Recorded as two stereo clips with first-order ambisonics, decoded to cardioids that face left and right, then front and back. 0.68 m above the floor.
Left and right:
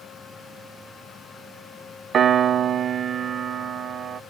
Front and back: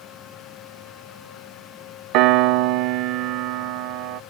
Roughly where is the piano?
Behind right.